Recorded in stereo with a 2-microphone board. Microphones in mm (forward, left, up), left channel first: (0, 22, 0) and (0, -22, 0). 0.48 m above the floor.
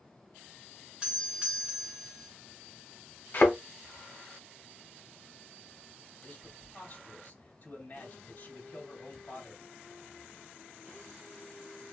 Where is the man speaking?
50° left (ahead or behind), 2.5 m.